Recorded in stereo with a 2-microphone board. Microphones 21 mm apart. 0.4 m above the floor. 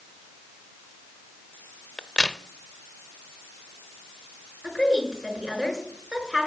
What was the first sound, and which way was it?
A crack, 35° left (ahead or behind).